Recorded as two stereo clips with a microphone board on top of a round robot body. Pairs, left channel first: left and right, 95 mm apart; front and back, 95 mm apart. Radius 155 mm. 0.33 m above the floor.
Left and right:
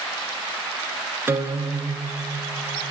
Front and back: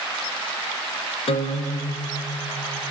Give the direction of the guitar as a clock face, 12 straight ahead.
1 o'clock.